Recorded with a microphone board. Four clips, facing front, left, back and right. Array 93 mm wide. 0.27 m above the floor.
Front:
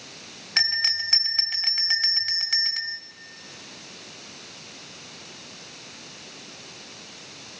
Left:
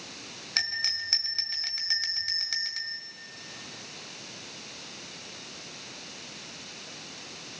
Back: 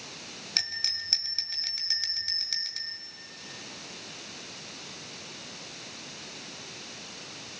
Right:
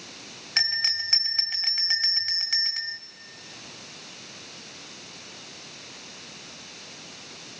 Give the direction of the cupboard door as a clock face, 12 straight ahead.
No cupboard door in this recording.